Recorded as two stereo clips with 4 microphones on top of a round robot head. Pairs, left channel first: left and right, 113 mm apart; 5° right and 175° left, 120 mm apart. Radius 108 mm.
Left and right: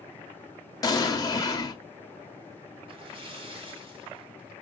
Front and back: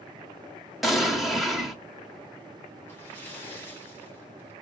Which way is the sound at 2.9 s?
75° right.